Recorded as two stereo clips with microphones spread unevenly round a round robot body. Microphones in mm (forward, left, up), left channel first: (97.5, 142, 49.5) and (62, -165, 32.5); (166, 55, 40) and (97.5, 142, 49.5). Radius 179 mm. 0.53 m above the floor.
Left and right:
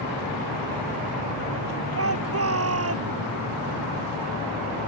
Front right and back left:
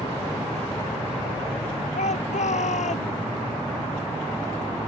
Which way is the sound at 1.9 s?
55° right.